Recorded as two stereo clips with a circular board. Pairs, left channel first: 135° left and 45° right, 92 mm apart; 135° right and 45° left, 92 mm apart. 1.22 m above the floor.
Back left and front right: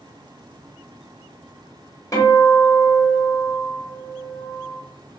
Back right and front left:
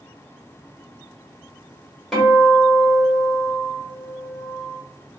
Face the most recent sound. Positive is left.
turn(degrees=140)